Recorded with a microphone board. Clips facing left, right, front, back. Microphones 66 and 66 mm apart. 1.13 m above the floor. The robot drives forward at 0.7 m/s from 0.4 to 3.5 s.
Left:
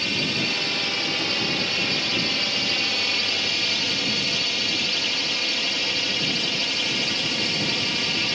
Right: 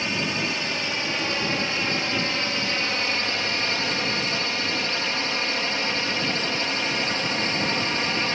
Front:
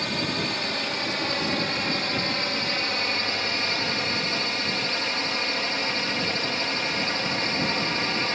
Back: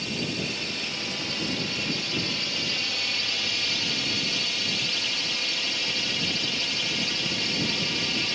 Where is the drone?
25° right; by 8.3 s 40° right.